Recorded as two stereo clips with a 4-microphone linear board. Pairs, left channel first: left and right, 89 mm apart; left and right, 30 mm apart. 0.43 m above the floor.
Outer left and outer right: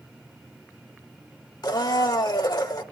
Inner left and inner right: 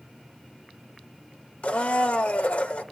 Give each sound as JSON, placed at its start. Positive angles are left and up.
{"t": 1.6, "sound": "a blender", "side_deg": 50, "distance_m": 1.1}